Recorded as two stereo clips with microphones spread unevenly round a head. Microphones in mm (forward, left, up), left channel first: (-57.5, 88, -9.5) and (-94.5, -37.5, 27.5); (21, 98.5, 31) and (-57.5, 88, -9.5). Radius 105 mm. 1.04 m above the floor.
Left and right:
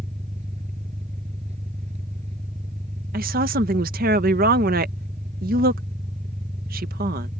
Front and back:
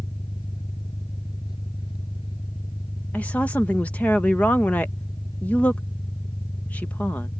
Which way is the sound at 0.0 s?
50° right.